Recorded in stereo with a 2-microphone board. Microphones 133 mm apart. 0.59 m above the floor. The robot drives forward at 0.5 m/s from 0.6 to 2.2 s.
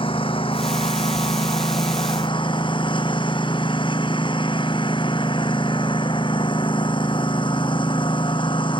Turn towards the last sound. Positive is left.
turn(degrees=40)  # may be behind; listen again after turning